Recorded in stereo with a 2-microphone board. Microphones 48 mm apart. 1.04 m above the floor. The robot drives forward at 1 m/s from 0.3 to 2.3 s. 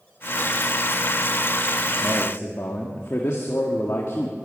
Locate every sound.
2.0 s a man speaking: 80° left, 1.7 m; by 4.3 s 70° left (ahead or behind), 1.7 m